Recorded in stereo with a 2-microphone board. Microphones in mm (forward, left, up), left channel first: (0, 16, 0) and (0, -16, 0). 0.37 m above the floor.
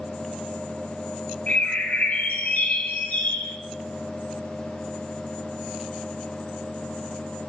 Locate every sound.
1.5 s a bird: 75° left (ahead or behind), 0.7 m